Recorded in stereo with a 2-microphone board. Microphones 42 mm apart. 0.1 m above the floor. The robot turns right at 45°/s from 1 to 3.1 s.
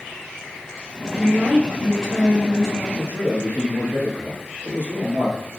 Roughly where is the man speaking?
Right.